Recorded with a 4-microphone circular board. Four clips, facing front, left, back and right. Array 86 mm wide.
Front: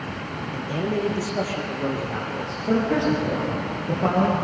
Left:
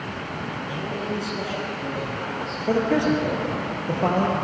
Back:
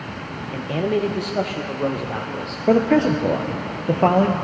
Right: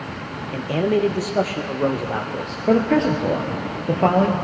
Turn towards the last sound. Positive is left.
turn(degrees=-160)